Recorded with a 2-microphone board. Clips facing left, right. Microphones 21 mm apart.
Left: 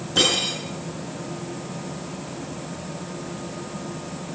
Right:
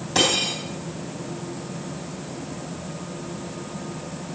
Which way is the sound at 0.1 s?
70° right (ahead or behind).